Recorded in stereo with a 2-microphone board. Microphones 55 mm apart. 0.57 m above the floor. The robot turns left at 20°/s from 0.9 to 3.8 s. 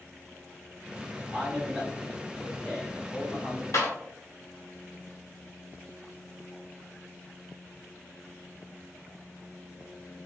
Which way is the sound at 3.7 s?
65° left (ahead or behind).